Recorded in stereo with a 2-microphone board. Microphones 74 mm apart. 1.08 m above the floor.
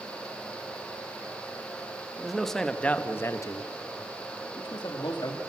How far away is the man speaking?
About 1.3 m.